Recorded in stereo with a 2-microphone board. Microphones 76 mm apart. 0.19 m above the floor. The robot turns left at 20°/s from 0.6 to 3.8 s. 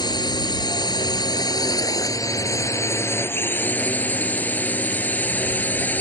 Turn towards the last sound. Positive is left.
turn(degrees=25)